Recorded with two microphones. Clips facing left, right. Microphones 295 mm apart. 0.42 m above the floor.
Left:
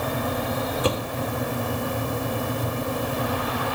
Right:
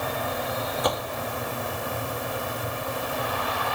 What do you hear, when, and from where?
0.8 s a door slam: 35° left (ahead or behind)